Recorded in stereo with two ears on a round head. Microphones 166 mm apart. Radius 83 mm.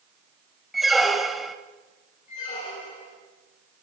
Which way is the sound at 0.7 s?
Centre (ahead or behind).